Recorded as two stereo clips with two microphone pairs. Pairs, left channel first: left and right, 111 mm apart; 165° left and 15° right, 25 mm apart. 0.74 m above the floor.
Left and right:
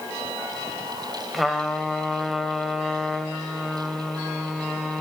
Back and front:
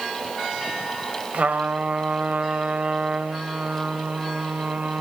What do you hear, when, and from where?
1.3 s a trumpet: straight ahead, 1.5 m